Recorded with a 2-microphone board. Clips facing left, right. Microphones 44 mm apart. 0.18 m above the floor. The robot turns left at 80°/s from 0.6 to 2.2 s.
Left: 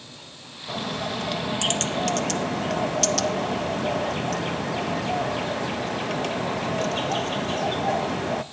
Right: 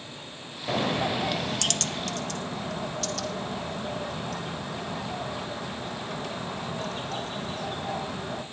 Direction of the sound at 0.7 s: 130° right.